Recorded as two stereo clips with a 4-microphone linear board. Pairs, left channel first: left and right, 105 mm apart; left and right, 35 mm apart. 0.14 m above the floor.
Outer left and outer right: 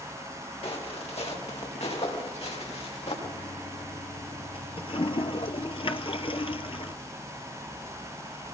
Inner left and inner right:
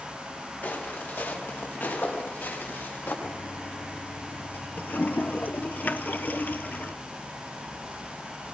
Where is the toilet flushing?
65° left (ahead or behind), 0.8 m.